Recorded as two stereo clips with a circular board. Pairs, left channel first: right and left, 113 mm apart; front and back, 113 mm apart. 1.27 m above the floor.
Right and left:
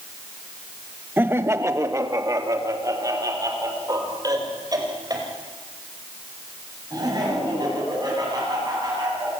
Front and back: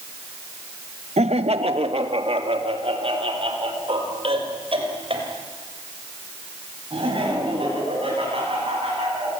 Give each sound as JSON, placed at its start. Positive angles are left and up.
{"t": 1.2, "sound": "laughter", "azimuth_deg": 165, "distance_m": 0.9}